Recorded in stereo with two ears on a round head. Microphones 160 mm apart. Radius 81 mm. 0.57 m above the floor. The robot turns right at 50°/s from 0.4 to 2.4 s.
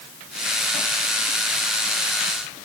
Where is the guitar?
I don't hear a guitar.